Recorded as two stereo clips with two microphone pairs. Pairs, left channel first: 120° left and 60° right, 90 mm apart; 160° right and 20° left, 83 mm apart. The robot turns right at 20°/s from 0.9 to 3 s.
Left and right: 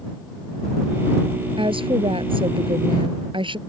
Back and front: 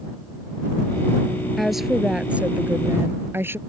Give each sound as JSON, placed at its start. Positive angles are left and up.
{"t": 1.6, "sound": "a woman speaking", "azimuth_deg": -70}